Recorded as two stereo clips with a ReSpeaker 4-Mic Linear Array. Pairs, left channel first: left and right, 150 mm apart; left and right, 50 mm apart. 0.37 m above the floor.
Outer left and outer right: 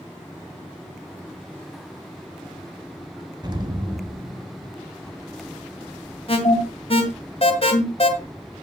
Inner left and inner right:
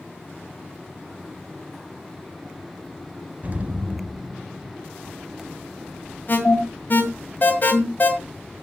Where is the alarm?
45° left (ahead or behind), 1.9 m.